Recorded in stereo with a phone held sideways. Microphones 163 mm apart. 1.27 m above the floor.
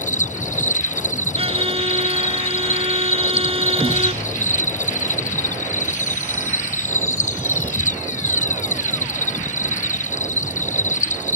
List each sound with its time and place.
0.0 s an insect: 50° left (ahead or behind)
1.4 s a violin: 35° right (ahead or behind)